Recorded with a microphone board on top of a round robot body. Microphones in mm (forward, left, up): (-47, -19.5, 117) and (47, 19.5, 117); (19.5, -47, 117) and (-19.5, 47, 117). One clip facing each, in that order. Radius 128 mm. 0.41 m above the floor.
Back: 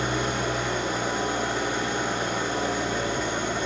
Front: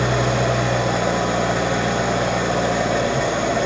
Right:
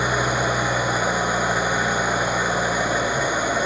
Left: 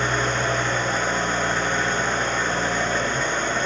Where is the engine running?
15° left, 0.9 m.